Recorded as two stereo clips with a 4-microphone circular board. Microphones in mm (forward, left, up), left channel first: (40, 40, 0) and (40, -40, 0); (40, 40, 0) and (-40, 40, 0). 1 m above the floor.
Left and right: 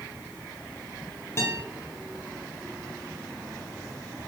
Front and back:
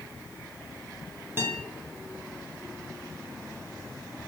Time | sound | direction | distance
1.4 | a guitar | 130° left | 0.9 m